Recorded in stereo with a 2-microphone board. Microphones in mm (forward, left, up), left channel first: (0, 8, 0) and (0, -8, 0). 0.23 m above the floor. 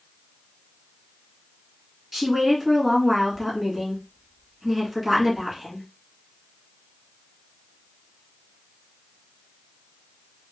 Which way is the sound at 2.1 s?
10° right (ahead or behind).